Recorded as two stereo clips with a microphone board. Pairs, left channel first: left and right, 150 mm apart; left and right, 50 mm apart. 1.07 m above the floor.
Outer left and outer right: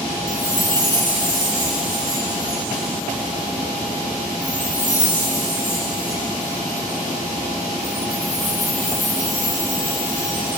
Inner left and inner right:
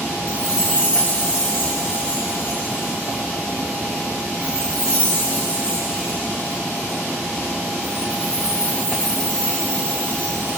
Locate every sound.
0.3 s a chime: 20° left (ahead or behind), 9.5 m